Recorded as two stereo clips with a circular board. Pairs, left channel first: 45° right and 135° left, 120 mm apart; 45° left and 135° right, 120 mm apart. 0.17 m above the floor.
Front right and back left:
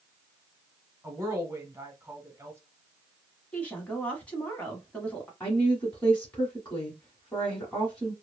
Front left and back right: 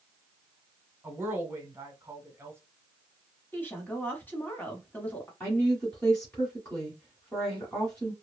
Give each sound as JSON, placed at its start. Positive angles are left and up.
{"t": 1.0, "sound": "a woman speaking", "azimuth_deg": 180, "distance_m": 1.2}
{"t": 3.5, "sound": "a woman speaking", "azimuth_deg": 10, "distance_m": 1.0}
{"t": 5.4, "sound": "a woman speaking", "azimuth_deg": -10, "distance_m": 1.4}